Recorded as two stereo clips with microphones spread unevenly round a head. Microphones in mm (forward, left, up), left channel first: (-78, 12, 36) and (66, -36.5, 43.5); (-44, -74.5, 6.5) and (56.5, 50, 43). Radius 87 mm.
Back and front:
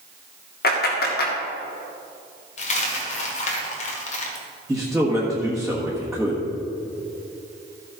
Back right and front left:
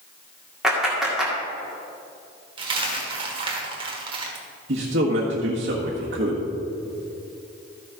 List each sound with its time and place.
0.6 s a clap: 140° left, 2 m
2.6 s a dropped coin: 110° left, 1.6 m
4.7 s a man speaking: 70° left, 1.5 m